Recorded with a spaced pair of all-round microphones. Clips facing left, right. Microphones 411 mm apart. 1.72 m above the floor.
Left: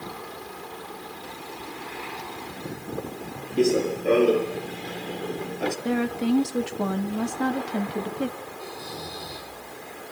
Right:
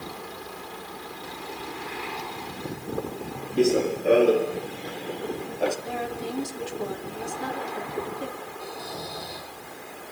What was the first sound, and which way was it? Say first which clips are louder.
Running footsteps: even; centre (ahead or behind).